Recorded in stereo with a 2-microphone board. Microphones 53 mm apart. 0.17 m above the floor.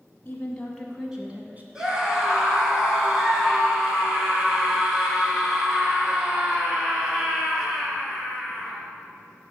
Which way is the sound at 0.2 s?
25° left (ahead or behind).